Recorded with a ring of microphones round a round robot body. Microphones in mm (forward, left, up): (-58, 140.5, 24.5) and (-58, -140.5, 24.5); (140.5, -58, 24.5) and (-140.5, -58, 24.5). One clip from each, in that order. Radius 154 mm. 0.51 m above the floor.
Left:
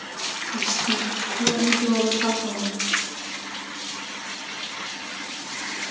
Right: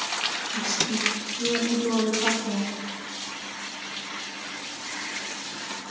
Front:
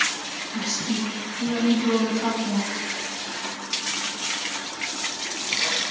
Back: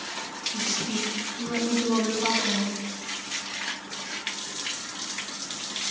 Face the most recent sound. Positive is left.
turn(degrees=-165)